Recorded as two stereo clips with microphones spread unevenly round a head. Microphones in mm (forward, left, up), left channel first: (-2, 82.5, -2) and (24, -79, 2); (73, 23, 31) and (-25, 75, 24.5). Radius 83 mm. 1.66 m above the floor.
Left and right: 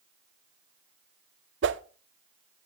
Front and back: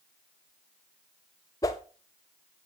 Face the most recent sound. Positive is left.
turn(degrees=-95)